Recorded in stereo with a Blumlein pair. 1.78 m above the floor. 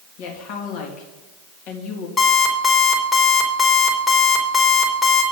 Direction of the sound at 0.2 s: 40° left.